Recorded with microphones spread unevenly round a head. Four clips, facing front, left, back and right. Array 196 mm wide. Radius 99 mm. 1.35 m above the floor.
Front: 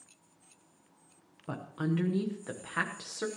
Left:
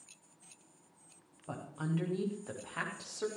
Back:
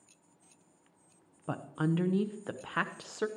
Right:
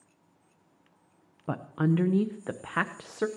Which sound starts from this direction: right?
A woman speaking, at 1.5 s.